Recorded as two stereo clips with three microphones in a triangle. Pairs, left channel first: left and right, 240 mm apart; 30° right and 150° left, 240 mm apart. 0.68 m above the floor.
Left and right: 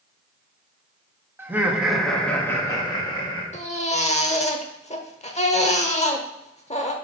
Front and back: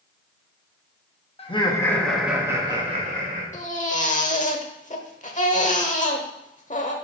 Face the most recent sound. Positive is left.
turn(degrees=25)